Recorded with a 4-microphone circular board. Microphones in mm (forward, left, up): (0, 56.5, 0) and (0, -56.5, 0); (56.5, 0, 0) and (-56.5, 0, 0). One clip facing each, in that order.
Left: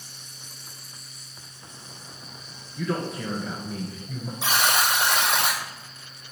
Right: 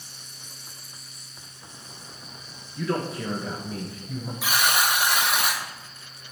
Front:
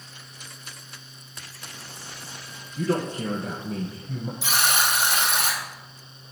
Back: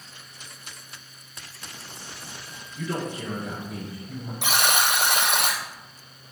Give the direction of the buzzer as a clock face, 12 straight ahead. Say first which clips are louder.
Left 1 dB, back 2 dB; 7 o'clock.